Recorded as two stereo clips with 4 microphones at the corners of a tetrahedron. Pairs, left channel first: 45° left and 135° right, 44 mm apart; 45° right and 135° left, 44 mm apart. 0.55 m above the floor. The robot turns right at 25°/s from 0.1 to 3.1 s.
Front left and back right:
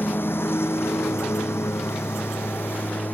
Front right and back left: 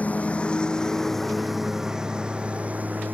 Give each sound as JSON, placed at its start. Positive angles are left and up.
{"t": 0.0, "sound": "a lawn mower", "azimuth_deg": 10}